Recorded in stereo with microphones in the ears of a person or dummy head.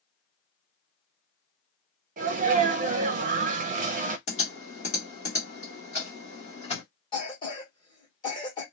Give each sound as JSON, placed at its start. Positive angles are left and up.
{"t": 2.2, "sound": "a sneeze", "side_deg": -35, "distance_m": 0.5}
{"t": 4.3, "sound": "typing on a keyboard", "side_deg": 40, "distance_m": 1.4}
{"t": 7.1, "sound": "a cough", "side_deg": 25, "distance_m": 1.4}